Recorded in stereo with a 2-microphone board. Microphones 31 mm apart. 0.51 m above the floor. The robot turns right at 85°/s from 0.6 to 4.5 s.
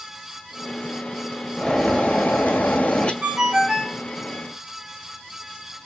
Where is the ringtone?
55° right, 1.1 m; by 4.0 s 15° left, 1.1 m.